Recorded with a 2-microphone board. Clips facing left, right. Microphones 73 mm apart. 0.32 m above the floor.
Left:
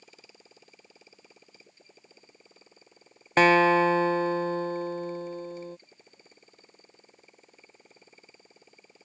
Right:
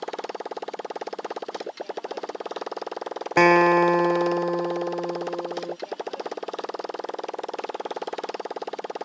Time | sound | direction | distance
0.0 | a motorcycle | 75° right (ahead or behind) | ?
3.4 | a guitar | 10° right (ahead or behind) | ?